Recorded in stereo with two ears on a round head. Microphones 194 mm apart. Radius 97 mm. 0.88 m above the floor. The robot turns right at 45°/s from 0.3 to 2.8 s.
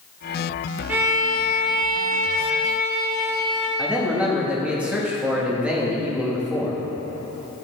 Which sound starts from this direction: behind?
A violin, at 0.9 s.